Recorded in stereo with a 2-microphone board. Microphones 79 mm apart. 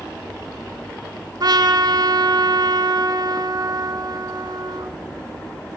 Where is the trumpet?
50° right (ahead or behind), 2.5 m.